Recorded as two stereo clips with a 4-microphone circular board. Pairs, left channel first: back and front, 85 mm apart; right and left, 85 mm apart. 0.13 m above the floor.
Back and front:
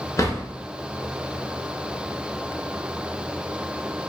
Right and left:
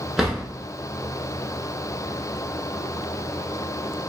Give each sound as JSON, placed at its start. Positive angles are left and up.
{"t": 0.2, "sound": "a drawer", "azimuth_deg": 170, "distance_m": 0.7}